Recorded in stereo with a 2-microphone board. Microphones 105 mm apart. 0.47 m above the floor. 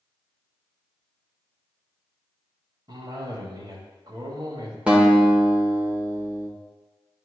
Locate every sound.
2.9 s a cough: 45° right (ahead or behind), 1.8 m
4.9 s a guitar: 10° right (ahead or behind), 1.3 m